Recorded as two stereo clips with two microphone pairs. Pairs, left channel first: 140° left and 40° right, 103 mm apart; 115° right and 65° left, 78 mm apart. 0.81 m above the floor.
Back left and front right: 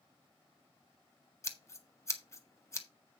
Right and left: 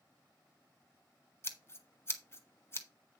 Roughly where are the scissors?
Behind.